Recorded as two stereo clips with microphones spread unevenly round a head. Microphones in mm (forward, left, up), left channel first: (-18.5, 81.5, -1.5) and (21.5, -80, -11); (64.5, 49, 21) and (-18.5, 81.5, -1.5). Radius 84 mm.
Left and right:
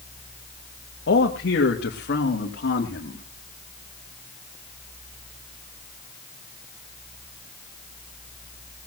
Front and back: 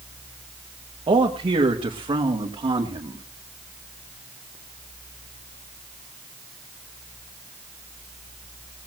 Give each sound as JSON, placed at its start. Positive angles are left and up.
{"t": 1.1, "sound": "a man speaking", "azimuth_deg": 135, "distance_m": 1.9}